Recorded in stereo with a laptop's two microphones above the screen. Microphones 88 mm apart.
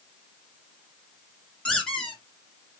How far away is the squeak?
About 2 m.